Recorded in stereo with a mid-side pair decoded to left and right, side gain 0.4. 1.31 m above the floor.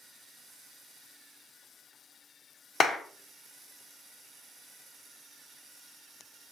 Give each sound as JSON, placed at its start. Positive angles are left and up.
{"t": 2.8, "sound": "a clap", "azimuth_deg": 65, "distance_m": 0.8}